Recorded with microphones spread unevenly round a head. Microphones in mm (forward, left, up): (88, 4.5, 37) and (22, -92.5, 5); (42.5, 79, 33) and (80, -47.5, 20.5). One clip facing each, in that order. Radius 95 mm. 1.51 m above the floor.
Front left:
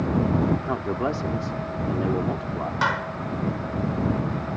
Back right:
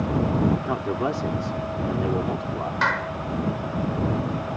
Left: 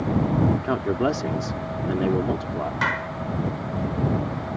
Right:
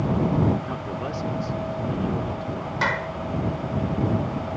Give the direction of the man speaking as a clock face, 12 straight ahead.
7 o'clock.